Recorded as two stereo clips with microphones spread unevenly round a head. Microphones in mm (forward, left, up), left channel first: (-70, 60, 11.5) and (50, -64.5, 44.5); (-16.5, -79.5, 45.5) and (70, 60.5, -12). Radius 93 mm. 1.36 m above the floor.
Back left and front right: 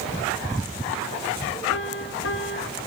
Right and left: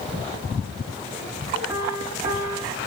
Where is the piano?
135° left, 3.5 m.